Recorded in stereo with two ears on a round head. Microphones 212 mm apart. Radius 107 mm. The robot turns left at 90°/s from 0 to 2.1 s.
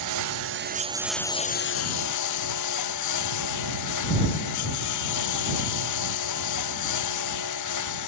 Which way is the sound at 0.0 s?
80° right.